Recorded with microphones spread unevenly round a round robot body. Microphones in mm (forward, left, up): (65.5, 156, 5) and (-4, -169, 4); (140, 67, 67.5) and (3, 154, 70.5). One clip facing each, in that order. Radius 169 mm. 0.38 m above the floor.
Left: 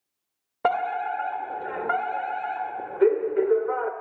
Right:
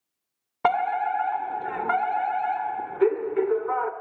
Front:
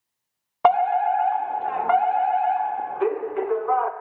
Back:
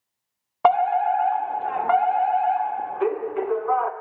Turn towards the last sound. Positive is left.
turn(degrees=-120)